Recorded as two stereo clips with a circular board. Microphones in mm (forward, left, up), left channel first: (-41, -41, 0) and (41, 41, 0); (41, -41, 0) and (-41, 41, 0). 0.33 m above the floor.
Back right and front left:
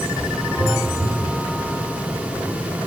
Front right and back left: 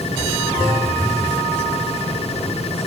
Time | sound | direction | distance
0.6 | a phone buzzing | 10° left | 0.7 m